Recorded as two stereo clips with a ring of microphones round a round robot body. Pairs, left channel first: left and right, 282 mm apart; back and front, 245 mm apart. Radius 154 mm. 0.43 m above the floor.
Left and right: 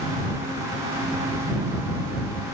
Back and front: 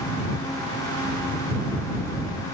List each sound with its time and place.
Only background noise.